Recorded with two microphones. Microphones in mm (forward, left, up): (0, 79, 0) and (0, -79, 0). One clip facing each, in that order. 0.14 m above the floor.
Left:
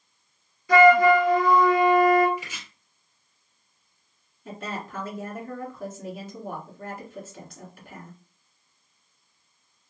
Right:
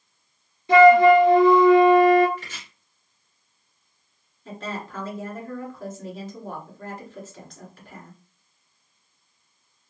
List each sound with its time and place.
0.7 s a flute: 25° right (ahead or behind), 1.1 m
2.4 s chopping: 10° left (ahead or behind), 2.5 m
4.5 s a woman speaking: 10° left (ahead or behind), 2.5 m